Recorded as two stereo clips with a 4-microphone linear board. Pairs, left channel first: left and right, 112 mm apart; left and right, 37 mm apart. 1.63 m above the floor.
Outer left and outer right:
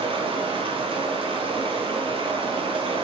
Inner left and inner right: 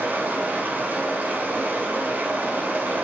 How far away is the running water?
About 0.9 m.